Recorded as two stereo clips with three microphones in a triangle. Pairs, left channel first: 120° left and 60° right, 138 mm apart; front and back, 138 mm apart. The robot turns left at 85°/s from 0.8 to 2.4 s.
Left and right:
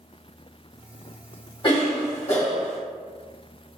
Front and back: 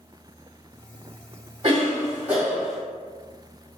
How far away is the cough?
About 0.9 m.